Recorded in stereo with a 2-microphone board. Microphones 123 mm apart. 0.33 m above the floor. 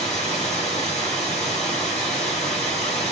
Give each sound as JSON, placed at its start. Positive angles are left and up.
{"t": 0.0, "sound": "running water", "side_deg": 65, "distance_m": 2.5}